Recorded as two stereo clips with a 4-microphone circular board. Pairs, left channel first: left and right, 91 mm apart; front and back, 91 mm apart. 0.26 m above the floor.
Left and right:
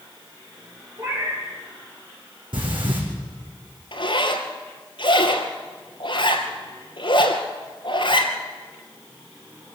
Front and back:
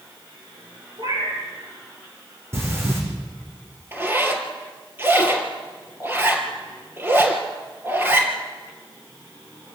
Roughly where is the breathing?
Behind right.